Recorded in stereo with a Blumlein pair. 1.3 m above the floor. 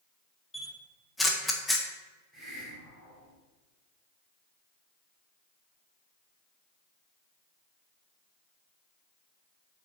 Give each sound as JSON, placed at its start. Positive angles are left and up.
{"t": 0.5, "sound": "a camera shutter", "azimuth_deg": 5, "distance_m": 0.6}
{"t": 2.3, "sound": "a hiss", "azimuth_deg": -5, "distance_m": 1.3}